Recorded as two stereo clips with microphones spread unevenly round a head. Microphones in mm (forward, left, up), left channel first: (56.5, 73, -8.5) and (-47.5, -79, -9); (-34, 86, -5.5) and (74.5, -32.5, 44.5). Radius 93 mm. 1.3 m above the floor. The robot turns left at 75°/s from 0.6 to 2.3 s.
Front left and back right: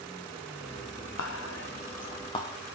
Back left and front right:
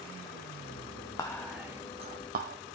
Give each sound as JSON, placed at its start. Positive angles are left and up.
{"t": 1.2, "sound": "whispering", "azimuth_deg": 75, "distance_m": 0.8}